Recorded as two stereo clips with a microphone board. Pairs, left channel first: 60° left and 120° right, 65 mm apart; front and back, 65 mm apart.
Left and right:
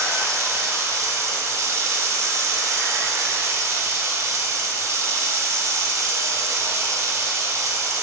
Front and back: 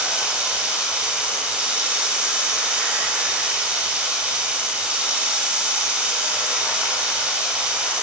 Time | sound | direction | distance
0.0 | running water | 110° right | 0.8 m